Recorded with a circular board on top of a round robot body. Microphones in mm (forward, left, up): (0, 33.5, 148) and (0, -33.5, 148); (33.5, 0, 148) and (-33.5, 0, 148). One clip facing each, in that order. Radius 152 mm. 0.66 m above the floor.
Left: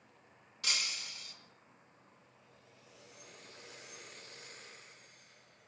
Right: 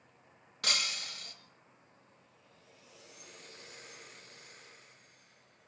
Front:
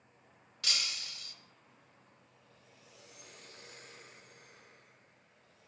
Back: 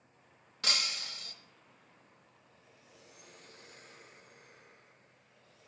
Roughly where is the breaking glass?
Behind right.